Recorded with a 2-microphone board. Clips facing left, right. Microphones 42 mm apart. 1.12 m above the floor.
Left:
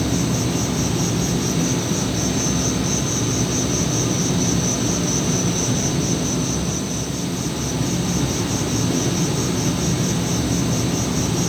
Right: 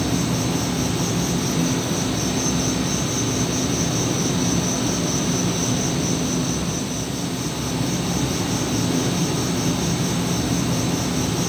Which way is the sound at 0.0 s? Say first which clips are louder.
Left 1 dB; 5° right (ahead or behind).